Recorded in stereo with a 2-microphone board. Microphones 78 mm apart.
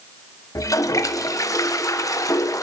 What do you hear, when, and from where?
0.6 s a toilet flushing: 45° left (ahead or behind), 1.2 m